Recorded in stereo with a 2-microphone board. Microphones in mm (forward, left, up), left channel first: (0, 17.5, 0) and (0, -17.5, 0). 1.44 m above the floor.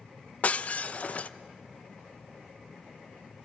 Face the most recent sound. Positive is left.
turn(degrees=45)  # may be behind; listen again after turning